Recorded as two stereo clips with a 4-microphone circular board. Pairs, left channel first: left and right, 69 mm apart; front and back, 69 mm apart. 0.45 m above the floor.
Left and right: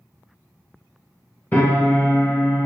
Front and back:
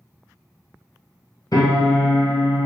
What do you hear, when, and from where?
1.5 s a piano: 25° left, 1.3 m